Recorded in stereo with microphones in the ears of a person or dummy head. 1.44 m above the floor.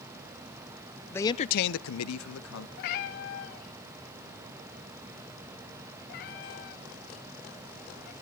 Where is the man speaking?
10° left (ahead or behind), 0.8 m; by 2.7 s 70° left (ahead or behind), 1.6 m.